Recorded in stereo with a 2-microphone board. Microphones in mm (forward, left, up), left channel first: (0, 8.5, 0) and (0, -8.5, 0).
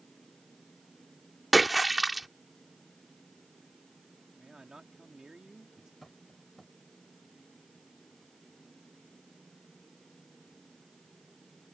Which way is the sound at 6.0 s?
15° left (ahead or behind).